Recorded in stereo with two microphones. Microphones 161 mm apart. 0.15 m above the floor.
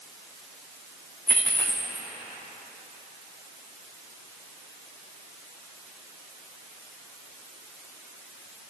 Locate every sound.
1.3 s a dropped coin: 10° left (ahead or behind), 2.5 m